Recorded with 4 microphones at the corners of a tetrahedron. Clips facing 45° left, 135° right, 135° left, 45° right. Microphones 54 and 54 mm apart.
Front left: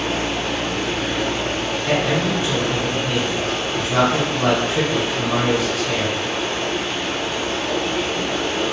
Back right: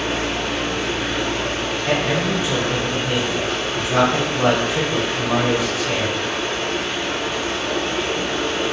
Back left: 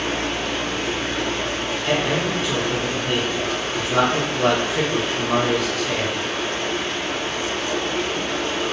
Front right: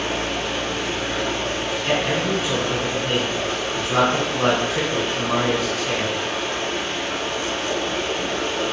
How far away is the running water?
About 1.9 m.